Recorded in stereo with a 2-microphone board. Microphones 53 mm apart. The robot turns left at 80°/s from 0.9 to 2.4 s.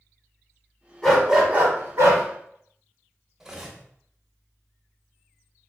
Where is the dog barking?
15° left, 0.9 m; by 2.2 s 85° right, 0.9 m.